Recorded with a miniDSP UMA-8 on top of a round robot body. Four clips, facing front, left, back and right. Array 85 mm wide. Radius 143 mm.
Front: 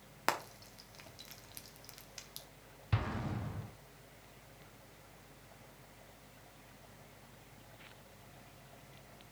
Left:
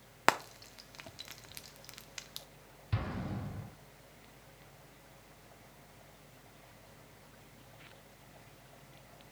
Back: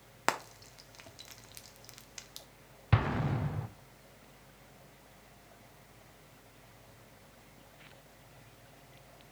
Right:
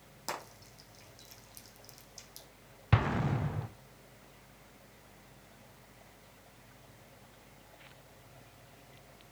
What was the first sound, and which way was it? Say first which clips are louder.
Frying: left 11 dB, back 2 dB; 105° left.